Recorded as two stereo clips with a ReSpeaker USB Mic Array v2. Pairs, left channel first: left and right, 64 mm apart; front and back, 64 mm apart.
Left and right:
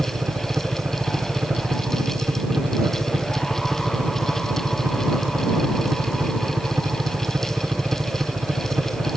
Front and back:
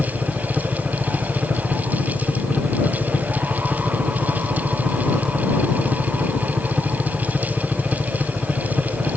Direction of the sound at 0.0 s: 100° right.